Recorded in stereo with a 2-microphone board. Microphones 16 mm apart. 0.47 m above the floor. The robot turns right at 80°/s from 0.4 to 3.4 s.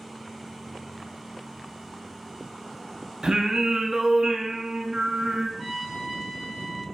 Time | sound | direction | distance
3.2 | singing | 50° right (ahead or behind) | 0.8 m
5.6 | a trumpet | 10° right (ahead or behind) | 3 m